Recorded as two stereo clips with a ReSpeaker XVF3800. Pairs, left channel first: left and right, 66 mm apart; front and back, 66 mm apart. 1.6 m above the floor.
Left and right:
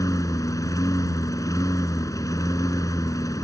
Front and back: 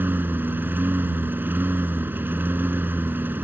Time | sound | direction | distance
0.0 | a lawn mower | 120° left | ?